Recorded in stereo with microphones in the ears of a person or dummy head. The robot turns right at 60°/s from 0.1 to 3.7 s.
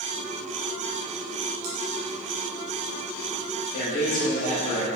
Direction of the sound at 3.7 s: 55° left (ahead or behind).